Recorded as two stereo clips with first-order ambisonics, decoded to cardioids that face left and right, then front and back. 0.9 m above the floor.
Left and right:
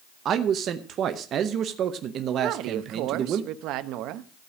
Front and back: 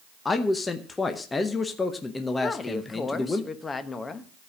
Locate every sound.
0.2 s a man speaking: 70° right, 0.7 m
2.4 s a woman speaking: 70° right, 0.9 m